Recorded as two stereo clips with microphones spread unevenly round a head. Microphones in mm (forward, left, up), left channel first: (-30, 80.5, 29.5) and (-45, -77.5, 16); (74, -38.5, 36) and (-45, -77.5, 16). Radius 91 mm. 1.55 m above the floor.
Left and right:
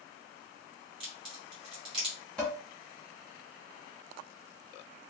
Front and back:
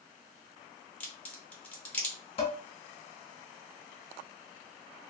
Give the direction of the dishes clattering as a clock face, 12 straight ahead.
12 o'clock.